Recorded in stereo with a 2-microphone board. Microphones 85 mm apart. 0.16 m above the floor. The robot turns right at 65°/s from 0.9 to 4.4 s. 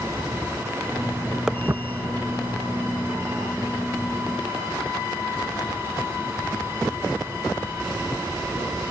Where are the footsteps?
5° right (ahead or behind), 0.8 m; by 8.7 s 50° left (ahead or behind), 7.5 m.